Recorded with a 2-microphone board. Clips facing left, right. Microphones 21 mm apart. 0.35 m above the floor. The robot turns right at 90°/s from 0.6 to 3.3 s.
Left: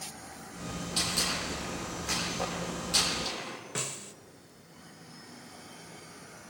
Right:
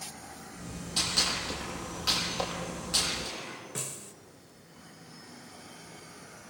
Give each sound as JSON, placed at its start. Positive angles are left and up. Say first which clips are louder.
{"t": 1.0, "sound": "a gunshot", "louder": "right 2 dB", "side_deg": 0, "distance_m": 7.5}
{"t": 3.8, "sound": "a snare drum", "louder": "left 6 dB", "side_deg": 25, "distance_m": 0.7}